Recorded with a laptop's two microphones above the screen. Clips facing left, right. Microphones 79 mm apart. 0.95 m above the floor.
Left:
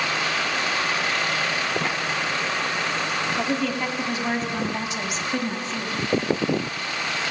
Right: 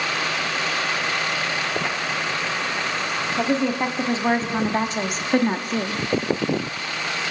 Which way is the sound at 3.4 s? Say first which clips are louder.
Right 6 dB; 20° right (ahead or behind).